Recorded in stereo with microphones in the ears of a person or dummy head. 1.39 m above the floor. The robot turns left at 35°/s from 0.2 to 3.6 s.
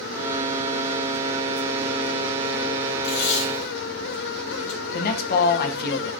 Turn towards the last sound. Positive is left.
turn(degrees=60)  # may be behind; listen again after turning